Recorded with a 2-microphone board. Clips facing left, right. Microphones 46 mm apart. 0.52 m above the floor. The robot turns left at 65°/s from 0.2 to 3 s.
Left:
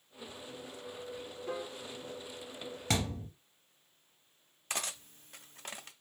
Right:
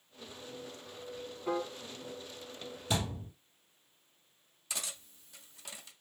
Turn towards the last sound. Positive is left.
turn(degrees=50)  # may be behind; listen again after turning